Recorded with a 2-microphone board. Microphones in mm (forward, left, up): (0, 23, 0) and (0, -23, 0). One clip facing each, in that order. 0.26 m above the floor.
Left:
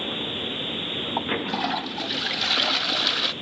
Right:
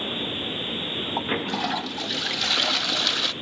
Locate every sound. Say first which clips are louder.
1.2 s a toilet flushing: left 1 dB; 5° left (ahead or behind), 0.6 m